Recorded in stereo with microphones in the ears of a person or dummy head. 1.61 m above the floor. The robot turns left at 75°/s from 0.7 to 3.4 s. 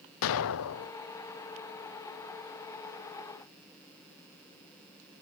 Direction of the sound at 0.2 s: 70° left (ahead or behind).